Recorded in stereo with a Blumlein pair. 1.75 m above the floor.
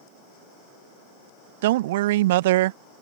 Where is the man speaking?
55° right.